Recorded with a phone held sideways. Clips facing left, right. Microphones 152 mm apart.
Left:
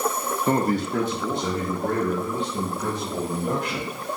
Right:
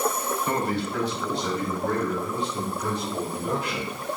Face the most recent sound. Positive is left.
turn(degrees=50)  # may be behind; listen again after turning